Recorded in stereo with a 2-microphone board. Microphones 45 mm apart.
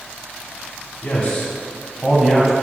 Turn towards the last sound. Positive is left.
turn(degrees=-15)  # may be behind; listen again after turning